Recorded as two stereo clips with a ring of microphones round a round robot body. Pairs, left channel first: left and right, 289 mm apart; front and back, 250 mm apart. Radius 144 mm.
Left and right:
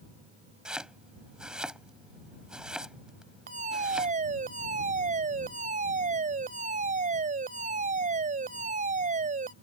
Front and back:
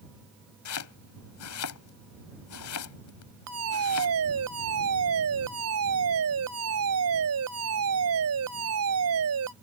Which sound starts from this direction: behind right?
A fire alarm, at 3.5 s.